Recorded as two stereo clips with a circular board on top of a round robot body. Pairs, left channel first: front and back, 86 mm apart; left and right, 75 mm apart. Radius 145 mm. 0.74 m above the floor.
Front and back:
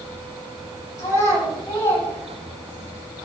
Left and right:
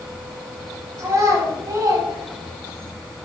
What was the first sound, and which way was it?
A child speaking, 55° right.